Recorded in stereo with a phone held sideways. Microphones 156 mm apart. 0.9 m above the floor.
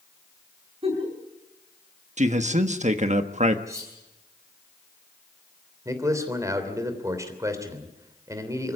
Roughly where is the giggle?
Right.